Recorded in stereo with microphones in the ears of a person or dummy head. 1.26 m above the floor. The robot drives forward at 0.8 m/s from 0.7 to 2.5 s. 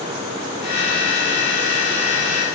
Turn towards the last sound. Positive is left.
No sound to turn to.